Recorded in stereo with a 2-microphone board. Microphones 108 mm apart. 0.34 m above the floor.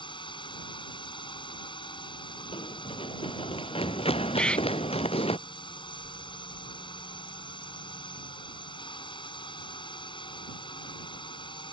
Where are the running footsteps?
55° left (ahead or behind); by 5.4 s 65° left (ahead or behind).